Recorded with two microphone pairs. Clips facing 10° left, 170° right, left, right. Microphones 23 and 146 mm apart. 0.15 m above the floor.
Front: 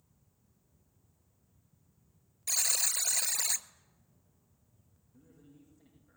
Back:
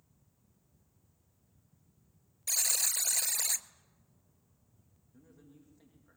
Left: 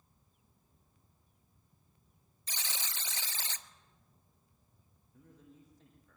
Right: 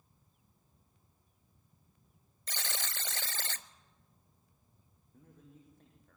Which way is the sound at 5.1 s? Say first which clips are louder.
Even, even; 125° right.